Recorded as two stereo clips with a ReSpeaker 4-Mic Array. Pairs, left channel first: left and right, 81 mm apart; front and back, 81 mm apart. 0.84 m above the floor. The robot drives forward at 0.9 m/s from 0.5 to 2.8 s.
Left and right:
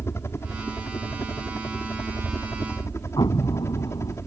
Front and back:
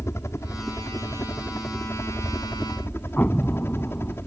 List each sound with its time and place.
0.0 s a helicopter: 45° left; by 4.3 s 50° left
3.2 s an explosion: 65° left